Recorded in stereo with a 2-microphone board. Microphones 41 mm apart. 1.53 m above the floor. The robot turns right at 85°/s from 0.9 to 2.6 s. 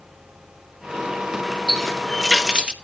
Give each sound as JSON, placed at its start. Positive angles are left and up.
{"t": 1.7, "sound": "a running tap", "azimuth_deg": 145, "distance_m": 0.8}